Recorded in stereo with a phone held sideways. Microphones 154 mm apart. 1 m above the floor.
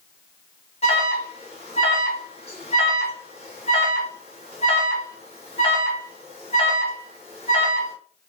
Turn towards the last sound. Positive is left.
turn(degrees=40)  # may be behind; listen again after turning